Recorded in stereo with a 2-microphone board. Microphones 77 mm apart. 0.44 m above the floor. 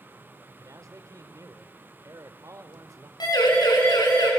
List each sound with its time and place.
0.6 s a man speaking: 45° right (ahead or behind), 1.8 m
3.2 s a siren: 60° left (ahead or behind), 6.5 m; by 4.3 s 65° left (ahead or behind), 7.5 m